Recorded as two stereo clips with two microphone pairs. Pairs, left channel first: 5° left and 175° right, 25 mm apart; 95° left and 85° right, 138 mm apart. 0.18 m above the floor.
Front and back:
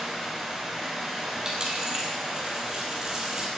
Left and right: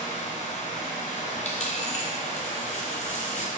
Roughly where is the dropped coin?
Behind left.